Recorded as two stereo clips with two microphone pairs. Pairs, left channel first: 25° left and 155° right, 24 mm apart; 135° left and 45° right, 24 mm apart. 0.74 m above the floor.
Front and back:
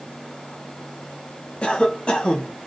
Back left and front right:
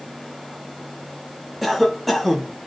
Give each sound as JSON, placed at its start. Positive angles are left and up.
{"t": 1.6, "sound": "a cough", "azimuth_deg": 45, "distance_m": 0.9}